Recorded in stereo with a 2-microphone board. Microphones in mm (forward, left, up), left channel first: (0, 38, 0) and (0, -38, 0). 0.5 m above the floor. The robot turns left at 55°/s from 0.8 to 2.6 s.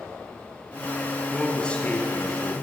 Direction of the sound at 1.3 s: 175° right.